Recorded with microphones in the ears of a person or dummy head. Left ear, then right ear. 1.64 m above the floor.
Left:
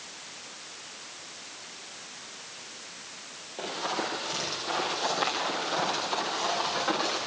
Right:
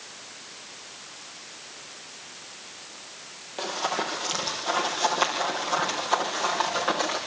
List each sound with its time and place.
3.6 s running footsteps: 50° right (ahead or behind), 3 m; by 7.2 s 25° right (ahead or behind), 4 m